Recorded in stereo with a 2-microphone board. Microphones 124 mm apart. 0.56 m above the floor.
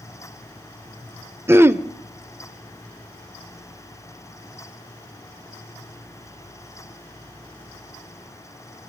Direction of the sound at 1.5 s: 20° right (ahead or behind).